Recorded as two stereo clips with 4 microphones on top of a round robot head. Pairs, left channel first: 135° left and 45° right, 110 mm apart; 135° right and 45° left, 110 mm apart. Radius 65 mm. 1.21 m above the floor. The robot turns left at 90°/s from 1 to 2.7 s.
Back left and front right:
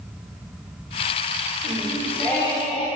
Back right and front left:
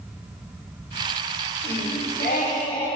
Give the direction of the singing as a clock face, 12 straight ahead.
3 o'clock.